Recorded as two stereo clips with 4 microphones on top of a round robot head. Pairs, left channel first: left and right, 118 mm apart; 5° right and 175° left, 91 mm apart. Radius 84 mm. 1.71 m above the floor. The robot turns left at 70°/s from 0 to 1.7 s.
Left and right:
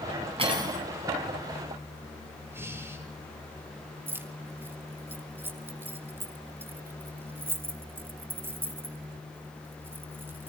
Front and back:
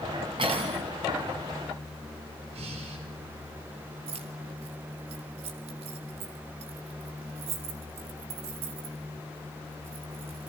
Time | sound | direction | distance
0.4 | cutlery clinking | 130° right | 8.5 m
2.5 | breathing | 160° right | 6 m
4.1 | keys jangling | 160° right | 3 m